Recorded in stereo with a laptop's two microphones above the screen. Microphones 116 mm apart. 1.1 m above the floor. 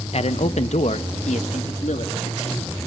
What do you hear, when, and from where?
0.1 s a man speaking: 60° left (ahead or behind), 0.7 m; by 2.7 s 85° left, 2.5 m